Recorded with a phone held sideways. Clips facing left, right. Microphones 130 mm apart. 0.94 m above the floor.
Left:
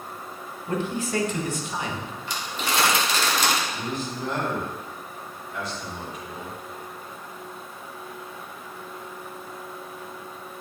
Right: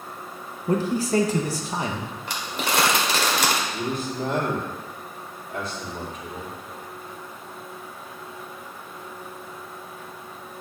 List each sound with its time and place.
0.7 s a man speaking: 35° right (ahead or behind), 0.9 m
2.3 s crumpling: 60° right (ahead or behind), 1.5 m
3.7 s a man speaking: 55° right (ahead or behind), 2.5 m